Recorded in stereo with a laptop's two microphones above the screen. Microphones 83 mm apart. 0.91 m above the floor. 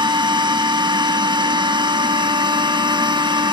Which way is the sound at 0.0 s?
70° right (ahead or behind).